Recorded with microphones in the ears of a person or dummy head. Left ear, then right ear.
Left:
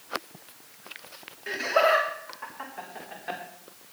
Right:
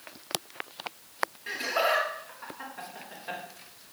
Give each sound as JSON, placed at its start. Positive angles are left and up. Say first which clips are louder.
{"t": 1.5, "sound": "laughter", "louder": "left 6 dB", "side_deg": 25, "distance_m": 3.0}